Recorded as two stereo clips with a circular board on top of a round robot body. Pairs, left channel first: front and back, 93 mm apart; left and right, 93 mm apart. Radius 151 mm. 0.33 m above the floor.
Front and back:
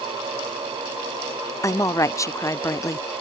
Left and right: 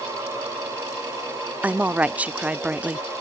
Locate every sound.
1.6 s a woman speaking: 25° right